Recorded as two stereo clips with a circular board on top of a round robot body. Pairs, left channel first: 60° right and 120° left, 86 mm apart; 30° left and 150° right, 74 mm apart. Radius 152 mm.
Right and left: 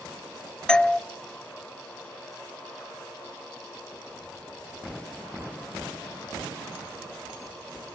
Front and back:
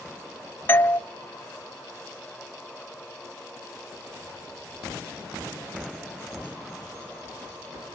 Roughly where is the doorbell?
Ahead.